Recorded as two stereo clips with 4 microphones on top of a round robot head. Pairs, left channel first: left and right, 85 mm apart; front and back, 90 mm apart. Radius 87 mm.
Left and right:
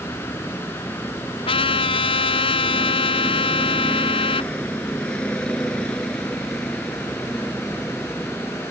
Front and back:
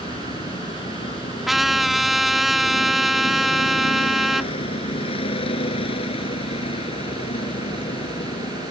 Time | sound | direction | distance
0.0 | a vehicle | 15° left | ?
1.5 | a trumpet | 90° left | ?